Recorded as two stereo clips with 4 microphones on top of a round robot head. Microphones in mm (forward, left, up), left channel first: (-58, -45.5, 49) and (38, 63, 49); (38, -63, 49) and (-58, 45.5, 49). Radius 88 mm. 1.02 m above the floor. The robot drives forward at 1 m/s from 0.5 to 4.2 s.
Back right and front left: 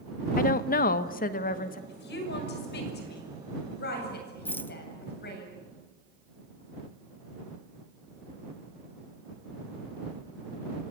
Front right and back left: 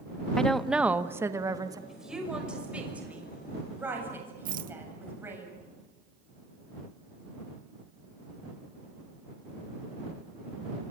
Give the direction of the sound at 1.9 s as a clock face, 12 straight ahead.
5 o'clock.